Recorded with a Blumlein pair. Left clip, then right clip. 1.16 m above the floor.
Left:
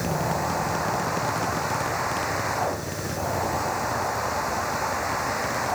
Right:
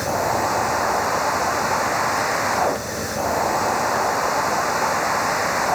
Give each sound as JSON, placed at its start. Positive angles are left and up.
{"t": 0.0, "sound": "a machine running", "azimuth_deg": -70}